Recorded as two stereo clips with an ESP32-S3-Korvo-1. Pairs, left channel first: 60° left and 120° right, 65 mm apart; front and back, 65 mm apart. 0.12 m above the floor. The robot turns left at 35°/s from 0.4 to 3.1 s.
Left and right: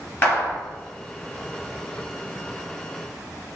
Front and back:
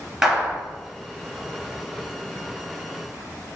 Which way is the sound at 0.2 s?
100° left.